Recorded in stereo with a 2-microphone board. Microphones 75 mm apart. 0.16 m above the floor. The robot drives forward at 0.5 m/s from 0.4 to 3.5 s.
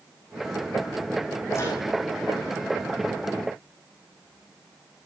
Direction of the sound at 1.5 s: 40° left (ahead or behind).